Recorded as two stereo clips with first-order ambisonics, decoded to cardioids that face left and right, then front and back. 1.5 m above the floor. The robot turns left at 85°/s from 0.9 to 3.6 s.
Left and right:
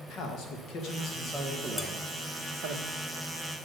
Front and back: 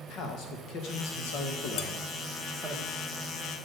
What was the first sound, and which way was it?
A man speaking, 45° left.